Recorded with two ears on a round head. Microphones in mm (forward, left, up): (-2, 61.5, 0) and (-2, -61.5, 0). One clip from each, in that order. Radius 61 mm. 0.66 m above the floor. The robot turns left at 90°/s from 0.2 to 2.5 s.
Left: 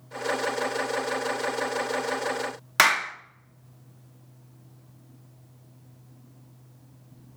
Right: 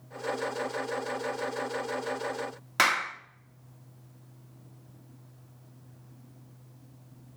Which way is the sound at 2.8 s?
30° left (ahead or behind).